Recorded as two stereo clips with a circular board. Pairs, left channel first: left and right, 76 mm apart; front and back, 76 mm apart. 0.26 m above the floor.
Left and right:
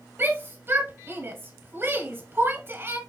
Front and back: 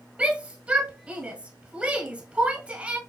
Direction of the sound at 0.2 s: 115° right.